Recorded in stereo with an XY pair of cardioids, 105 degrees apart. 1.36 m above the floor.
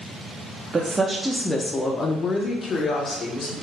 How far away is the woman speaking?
About 0.6 m.